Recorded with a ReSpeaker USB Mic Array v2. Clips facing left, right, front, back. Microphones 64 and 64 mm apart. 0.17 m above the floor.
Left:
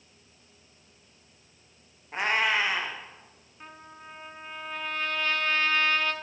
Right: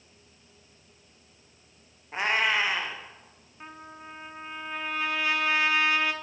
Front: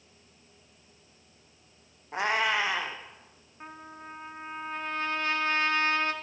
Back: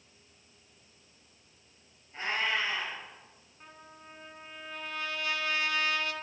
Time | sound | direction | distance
2.1 | a cat meowing | straight ahead | 1.2 m
3.6 | a trumpet | 20° right | 0.7 m